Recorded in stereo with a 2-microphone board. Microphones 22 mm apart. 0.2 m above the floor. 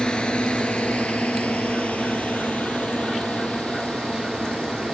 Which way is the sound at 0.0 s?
45° left (ahead or behind).